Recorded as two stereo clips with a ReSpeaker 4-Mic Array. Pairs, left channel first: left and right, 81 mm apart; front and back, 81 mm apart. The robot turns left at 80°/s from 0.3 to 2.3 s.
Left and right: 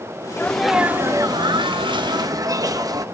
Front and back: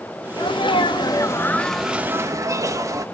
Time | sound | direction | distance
0.4 | a sneeze | 25° left | 1.1 m